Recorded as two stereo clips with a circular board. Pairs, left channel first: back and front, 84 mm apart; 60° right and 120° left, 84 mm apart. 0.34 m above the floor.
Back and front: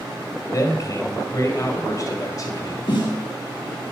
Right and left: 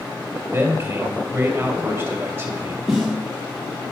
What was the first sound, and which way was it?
A man speaking, 170° left.